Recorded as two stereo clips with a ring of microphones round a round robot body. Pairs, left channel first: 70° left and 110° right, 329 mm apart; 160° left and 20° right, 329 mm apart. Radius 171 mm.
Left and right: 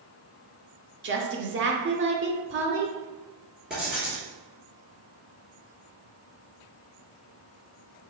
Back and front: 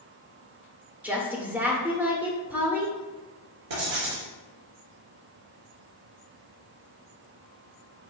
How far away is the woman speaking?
About 0.9 m.